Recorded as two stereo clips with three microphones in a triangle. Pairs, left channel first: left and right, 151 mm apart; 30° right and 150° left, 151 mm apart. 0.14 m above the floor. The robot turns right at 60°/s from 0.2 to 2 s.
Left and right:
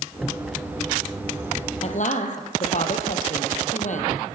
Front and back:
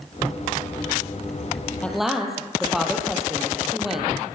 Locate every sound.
1.8 s a woman speaking: 50° left, 4.5 m; by 4.1 s 60° left, 4.5 m